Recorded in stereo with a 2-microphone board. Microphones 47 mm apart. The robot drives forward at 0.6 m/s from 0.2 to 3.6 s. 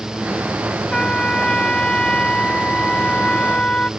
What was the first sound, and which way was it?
A trumpet, 15° left (ahead or behind).